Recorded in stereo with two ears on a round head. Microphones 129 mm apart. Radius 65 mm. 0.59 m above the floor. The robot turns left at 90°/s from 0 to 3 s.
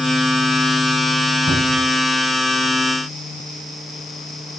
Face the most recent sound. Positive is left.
turn(degrees=60)